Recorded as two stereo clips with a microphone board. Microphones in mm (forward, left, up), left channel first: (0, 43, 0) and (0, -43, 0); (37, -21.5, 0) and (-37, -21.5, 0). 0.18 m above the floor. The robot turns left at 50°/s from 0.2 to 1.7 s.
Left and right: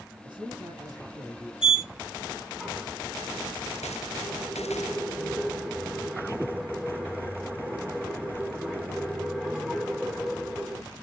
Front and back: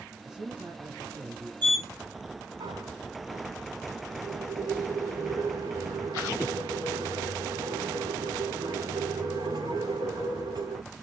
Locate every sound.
0.2 s a man speaking: 95° right, 6 m; by 1.5 s 160° right, 6 m
1.6 s a sliding door: 160° right, 7 m; by 10.8 s 165° right, 7 m